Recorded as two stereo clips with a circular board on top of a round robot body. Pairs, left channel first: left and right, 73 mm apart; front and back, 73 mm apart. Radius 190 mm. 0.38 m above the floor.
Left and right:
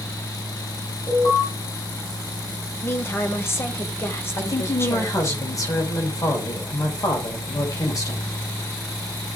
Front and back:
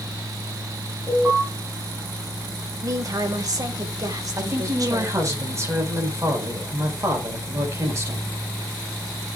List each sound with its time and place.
1.1 s an alarm: 120° left, 8 m
2.8 s a woman speaking: 145° left, 2.5 m
4.4 s a woman speaking: 130° left, 5.5 m